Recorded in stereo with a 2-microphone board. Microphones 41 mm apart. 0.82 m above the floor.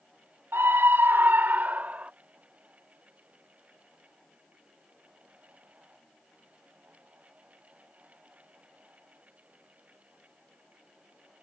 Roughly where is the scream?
Right.